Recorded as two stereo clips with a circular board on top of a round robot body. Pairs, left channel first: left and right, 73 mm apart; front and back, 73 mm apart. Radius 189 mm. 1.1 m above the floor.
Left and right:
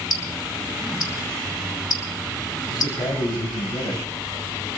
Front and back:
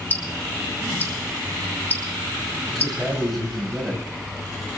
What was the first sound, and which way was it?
Ticking, 65° left.